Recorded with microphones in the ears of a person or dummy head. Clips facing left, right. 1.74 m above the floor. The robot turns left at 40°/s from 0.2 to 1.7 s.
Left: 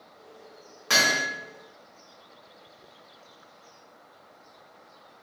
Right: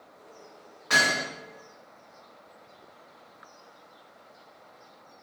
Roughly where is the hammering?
Left.